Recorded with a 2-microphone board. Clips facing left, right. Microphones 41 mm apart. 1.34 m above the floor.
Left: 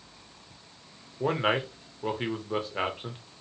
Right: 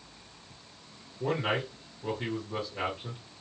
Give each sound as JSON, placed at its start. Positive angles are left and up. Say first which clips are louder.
{"t": 1.2, "sound": "a man speaking", "louder": "left 3 dB", "side_deg": 45, "distance_m": 0.8}